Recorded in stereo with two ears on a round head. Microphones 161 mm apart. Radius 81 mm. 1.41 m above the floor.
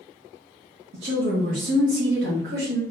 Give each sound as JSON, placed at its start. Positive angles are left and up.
{"t": 0.9, "sound": "a woman speaking", "side_deg": -65, "distance_m": 0.9}